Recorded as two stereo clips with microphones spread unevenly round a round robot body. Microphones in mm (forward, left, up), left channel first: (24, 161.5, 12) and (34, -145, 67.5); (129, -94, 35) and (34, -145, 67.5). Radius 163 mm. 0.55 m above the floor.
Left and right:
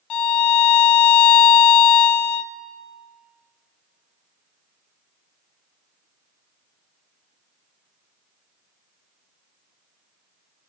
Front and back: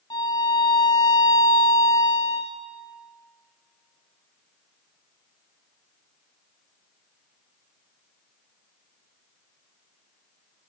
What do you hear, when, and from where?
0.1 s a violin: 105° left, 0.9 m